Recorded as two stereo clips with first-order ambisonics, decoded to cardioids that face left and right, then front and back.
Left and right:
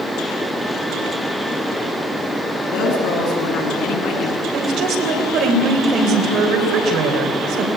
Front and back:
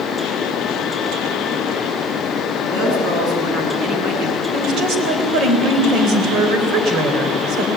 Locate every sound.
2.7 s a woman speaking: 135° left, 8 m
4.5 s a woman speaking: 135° right, 3.5 m